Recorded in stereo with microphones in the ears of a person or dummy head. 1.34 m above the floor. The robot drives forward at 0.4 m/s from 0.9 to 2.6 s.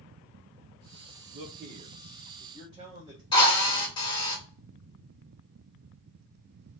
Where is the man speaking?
35° right (ahead or behind), 1.2 m; by 3.2 s 25° right (ahead or behind), 1.6 m.